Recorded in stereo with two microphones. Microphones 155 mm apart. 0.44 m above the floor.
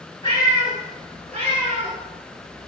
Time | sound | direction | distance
0.2 | a cat meowing | 25° left (ahead or behind) | 2.5 m